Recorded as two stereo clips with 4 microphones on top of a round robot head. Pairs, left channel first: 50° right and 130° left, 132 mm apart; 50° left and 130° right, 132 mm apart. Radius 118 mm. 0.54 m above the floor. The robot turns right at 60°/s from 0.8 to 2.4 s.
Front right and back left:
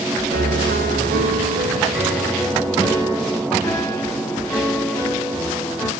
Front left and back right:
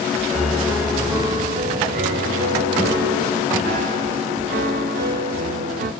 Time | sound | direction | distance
0.3 | a piano | 140° left | 0.8 m